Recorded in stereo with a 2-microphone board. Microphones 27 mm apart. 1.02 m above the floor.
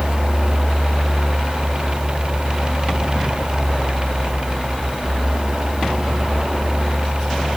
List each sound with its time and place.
Only background noise.